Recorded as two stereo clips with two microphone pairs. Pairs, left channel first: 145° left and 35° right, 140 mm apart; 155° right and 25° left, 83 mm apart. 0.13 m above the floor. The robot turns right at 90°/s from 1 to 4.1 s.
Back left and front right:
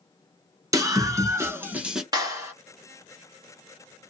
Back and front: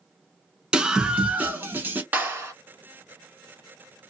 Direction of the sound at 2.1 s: 15° right.